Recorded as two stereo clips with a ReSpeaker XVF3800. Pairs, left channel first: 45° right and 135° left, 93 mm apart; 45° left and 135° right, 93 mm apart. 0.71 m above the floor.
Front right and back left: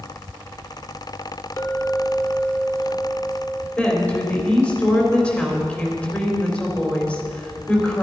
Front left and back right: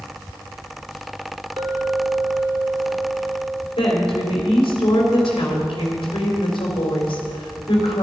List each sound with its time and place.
1.6 s a clink: 110° right, 1.4 m
3.8 s a woman speaking: 30° left, 3.5 m